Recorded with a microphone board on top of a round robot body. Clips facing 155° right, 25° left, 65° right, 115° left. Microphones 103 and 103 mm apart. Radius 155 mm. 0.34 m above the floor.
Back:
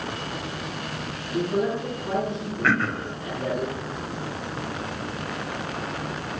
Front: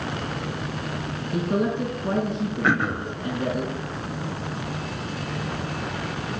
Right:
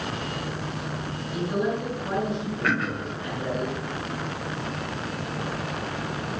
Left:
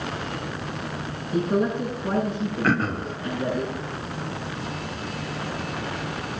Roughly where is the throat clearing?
Left.